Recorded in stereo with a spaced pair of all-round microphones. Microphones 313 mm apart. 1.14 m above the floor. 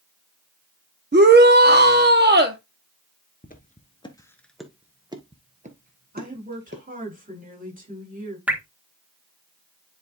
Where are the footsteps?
30° left (ahead or behind), 1.2 m; by 6.8 s 35° right (ahead or behind), 1.9 m.